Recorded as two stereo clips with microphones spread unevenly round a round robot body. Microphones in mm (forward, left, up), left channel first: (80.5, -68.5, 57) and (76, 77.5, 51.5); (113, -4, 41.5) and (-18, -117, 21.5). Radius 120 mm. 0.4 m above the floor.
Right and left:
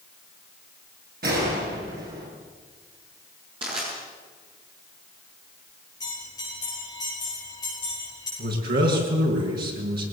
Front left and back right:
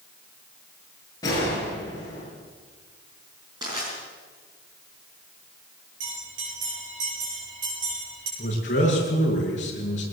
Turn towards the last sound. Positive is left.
turn(degrees=100)